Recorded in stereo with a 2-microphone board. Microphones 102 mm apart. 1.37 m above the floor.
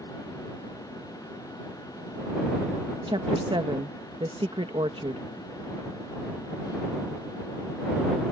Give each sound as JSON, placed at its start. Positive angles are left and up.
{"t": 3.1, "sound": "a woman speaking", "side_deg": -55}